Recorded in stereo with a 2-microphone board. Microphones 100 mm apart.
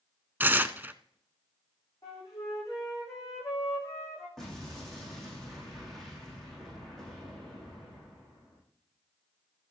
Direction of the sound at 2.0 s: 35° left (ahead or behind).